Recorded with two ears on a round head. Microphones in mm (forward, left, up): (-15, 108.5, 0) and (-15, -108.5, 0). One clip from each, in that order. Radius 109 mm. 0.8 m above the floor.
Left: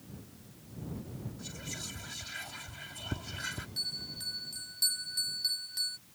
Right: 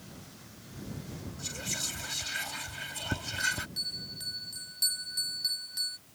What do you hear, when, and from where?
1.4 s whispering: 30° right (ahead or behind)
3.8 s a bell: centre (ahead or behind)